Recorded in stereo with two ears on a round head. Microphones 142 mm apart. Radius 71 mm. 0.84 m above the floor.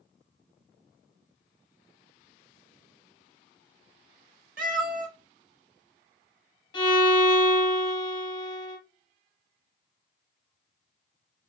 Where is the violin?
30° left (ahead or behind), 1.3 m.